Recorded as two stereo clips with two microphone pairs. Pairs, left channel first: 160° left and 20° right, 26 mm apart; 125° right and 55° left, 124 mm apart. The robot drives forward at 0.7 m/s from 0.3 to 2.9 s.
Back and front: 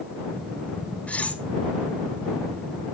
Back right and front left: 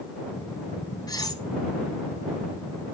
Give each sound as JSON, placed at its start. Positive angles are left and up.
{"t": 1.1, "sound": "cutlery clinking", "azimuth_deg": 180, "distance_m": 1.3}